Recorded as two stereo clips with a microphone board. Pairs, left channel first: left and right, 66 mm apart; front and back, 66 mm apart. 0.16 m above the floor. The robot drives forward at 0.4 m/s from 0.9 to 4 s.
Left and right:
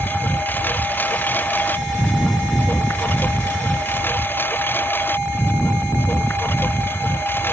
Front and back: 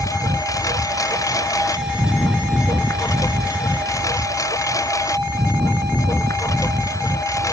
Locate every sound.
0.0 s a lawn mower: 30° left; by 7.5 s 35° left